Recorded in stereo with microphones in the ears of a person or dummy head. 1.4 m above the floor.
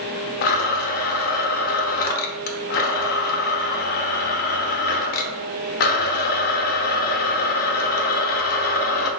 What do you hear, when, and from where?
0.4 s a blender: 50° left (ahead or behind), 0.5 m